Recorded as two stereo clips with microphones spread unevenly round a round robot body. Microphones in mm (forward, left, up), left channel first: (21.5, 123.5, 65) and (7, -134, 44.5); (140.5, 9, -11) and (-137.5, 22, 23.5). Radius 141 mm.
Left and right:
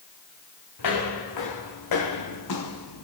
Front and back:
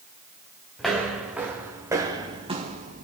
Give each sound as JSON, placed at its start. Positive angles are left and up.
{"t": 0.8, "sound": "footsteps", "azimuth_deg": 85, "distance_m": 3.0}